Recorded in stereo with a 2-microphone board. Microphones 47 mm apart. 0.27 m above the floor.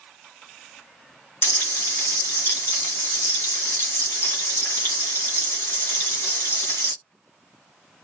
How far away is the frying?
About 2 m.